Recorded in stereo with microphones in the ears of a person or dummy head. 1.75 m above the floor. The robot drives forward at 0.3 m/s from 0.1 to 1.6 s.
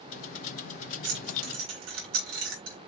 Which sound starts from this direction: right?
Keys jangling, at 1.0 s.